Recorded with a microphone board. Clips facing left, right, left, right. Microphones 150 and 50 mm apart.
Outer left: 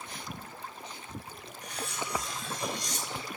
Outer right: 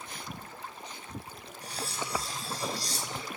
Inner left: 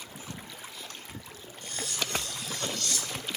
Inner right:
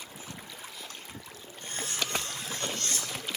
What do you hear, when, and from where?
1.6 s cutlery clinking: 35° right (ahead or behind), 1.1 m